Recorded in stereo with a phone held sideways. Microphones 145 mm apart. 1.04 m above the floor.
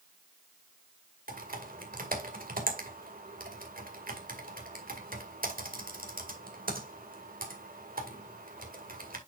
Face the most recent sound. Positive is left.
turn(degrees=-80)